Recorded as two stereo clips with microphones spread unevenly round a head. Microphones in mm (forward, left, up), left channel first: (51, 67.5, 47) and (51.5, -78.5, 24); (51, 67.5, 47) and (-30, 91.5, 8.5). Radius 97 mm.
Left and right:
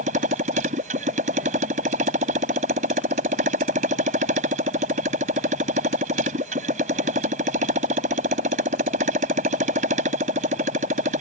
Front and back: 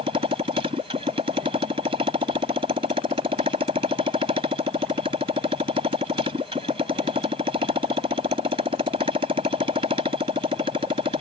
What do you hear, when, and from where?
0.0 s a motorcycle: 145° right